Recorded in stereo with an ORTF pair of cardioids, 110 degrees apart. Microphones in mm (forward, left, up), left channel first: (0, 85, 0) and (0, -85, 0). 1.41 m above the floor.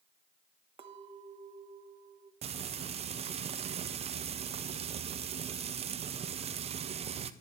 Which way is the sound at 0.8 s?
40° right.